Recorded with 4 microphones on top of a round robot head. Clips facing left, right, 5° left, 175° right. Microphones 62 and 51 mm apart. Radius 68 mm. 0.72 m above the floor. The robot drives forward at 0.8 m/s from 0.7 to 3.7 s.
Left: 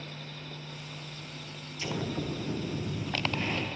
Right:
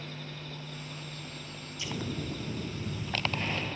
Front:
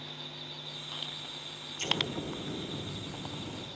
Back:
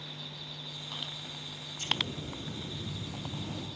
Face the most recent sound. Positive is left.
turn(degrees=95)